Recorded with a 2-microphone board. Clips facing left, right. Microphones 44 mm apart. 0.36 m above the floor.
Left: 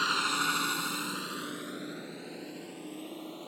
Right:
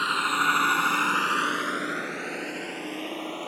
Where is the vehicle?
15° right (ahead or behind); by 3.5 s 65° right (ahead or behind).